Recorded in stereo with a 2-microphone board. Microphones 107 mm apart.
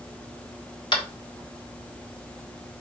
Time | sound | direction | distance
0.9 | tapping | 50° left (ahead or behind) | 1.3 m